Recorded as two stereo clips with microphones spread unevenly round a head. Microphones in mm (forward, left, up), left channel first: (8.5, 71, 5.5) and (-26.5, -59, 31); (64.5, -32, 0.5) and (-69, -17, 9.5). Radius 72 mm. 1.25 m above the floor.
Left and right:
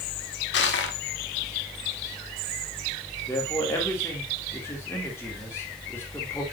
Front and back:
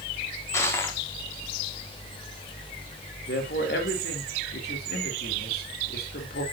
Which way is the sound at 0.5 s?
65° left.